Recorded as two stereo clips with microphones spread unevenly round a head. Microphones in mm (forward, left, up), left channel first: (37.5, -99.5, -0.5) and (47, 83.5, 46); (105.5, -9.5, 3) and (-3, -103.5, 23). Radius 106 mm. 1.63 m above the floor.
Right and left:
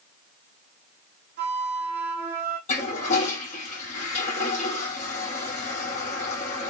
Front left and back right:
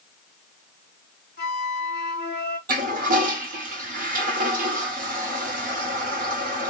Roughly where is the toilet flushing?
Behind.